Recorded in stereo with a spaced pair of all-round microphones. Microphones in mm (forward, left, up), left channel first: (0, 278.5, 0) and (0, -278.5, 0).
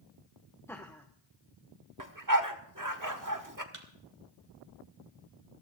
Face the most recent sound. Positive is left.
turn(degrees=-60)  # may be behind; listen again after turning